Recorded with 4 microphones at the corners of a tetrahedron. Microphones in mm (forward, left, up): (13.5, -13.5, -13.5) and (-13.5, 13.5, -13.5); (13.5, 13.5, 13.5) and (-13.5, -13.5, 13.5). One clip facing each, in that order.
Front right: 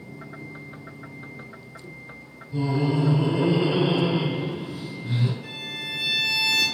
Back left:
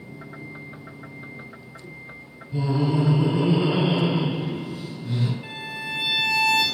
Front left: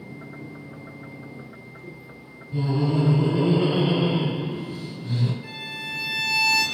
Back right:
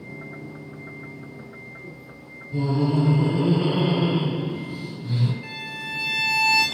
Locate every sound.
2.5 s laughter: 105° left, 1.4 m; by 5.3 s 80° right, 1.1 m
5.4 s a violin: straight behind, 0.7 m